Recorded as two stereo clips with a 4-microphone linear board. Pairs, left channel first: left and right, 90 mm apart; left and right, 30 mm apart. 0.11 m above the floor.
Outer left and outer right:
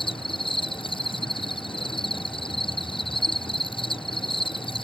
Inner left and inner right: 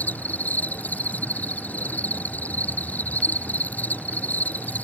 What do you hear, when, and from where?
0.0 s an insect: 70° left (ahead or behind)